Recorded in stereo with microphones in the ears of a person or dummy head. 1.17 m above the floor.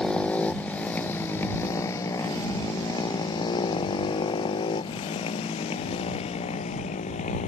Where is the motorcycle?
5° left (ahead or behind); by 7.5 s 40° left (ahead or behind).